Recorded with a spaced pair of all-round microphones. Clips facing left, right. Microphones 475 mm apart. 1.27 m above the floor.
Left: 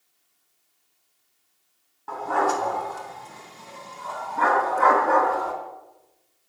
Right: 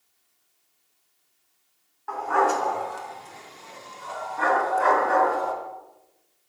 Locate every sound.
2.1 s a dog barking: 55° left (ahead or behind), 3.5 m; by 5.5 s 75° left (ahead or behind), 4 m